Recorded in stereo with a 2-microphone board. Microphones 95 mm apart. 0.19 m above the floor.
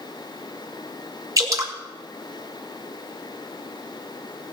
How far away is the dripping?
About 1.9 m.